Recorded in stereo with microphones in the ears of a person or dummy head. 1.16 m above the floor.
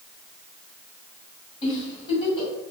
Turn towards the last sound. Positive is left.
turn(degrees=25)  # may be behind; listen again after turning